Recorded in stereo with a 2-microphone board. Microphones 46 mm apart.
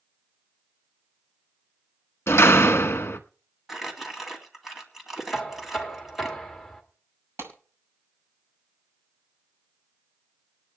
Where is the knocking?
5° left (ahead or behind), 2 m.